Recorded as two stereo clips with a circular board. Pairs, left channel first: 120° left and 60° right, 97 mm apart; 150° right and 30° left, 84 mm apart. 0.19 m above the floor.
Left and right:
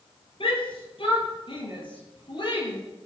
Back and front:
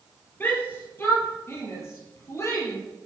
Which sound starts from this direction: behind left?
A shout, at 0.4 s.